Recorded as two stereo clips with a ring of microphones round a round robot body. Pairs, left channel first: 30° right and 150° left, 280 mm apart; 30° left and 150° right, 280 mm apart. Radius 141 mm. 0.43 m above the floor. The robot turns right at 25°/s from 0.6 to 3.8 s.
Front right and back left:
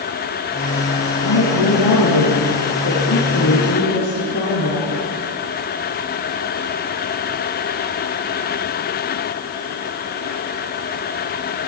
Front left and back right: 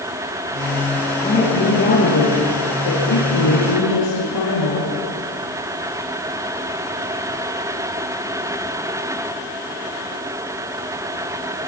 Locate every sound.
1.2 s a woman speaking: 40° right, 7.5 m; by 4.9 s 25° left, 7.5 m